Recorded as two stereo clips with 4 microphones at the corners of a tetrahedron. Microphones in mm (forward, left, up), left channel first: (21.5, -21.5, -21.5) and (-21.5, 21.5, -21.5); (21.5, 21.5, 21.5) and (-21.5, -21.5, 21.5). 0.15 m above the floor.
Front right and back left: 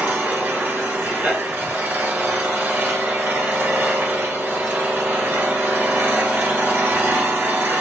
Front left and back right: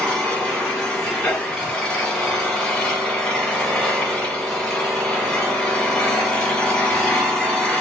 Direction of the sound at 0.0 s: 115° left.